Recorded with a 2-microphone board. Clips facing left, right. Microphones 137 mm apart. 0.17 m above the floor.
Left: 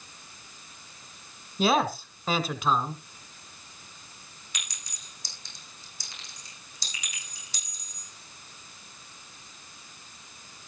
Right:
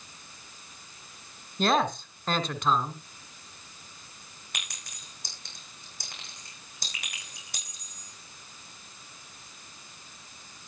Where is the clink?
60° right (ahead or behind), 6.5 m.